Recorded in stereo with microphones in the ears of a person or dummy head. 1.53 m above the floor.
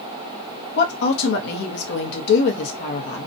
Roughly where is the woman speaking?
Left.